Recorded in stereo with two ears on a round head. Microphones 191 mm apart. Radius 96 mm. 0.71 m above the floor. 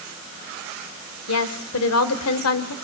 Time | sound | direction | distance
1.3 | a woman speaking | 75° left (ahead or behind) | 2.5 m